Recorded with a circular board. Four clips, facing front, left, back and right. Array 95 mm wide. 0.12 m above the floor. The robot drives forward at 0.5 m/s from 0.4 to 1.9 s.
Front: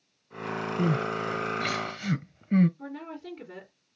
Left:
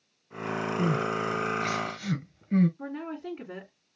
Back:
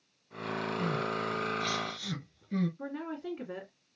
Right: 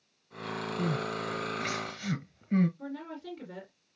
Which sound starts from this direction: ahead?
Crying, at 0.8 s.